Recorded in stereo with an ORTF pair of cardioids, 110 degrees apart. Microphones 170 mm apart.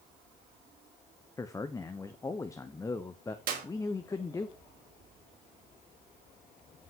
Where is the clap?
60° right, 3.5 m.